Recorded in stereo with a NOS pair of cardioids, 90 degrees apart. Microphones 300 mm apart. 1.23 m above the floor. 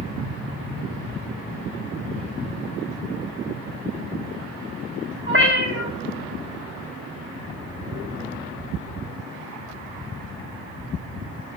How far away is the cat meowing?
About 1.5 m.